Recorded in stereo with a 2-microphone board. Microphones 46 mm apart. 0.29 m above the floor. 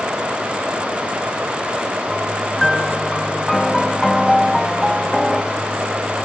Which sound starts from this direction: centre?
A piano, at 2.6 s.